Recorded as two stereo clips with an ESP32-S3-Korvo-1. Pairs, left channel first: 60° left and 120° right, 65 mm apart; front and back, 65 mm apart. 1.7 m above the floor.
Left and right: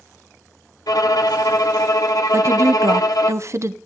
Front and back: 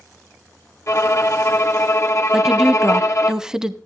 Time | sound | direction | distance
0.9 | a violin | 40° left | 0.9 m
2.3 | a woman speaking | 105° right | 0.7 m